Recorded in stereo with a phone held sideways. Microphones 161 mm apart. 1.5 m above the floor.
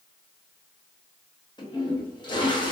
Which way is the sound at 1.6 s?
30° left (ahead or behind).